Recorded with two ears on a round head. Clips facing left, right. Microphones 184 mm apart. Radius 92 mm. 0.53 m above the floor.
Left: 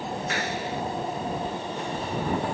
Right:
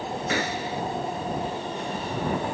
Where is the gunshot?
80° right.